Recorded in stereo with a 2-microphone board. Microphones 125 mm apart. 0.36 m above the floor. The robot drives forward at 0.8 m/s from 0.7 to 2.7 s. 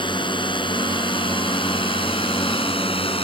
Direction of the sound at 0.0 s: 40° left (ahead or behind).